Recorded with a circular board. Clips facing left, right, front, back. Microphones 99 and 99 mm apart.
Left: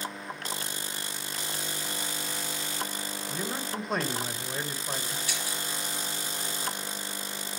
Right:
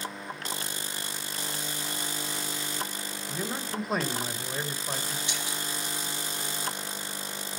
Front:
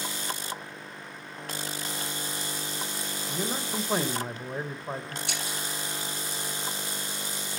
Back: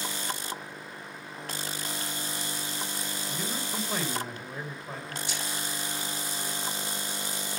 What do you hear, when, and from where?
3.3 s a man speaking: 5° right, 1.5 m
5.3 s breaking glass: 25° right, 6 m